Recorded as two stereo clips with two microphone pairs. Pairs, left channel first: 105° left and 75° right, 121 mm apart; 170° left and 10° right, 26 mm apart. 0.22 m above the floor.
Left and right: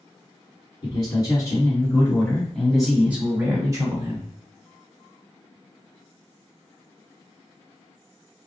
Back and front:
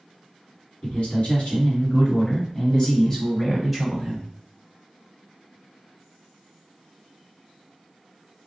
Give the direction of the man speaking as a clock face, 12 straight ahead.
8 o'clock.